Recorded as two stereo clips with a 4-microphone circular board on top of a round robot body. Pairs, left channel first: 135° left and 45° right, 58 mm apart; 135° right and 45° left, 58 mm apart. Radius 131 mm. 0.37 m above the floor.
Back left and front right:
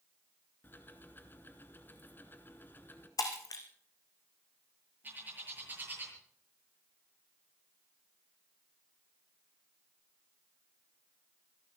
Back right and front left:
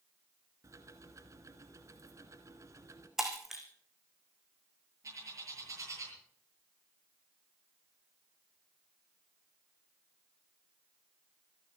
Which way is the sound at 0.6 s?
80° left.